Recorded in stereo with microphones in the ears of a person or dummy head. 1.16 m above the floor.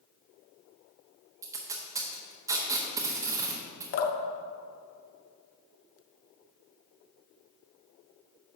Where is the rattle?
No rattle in this recording.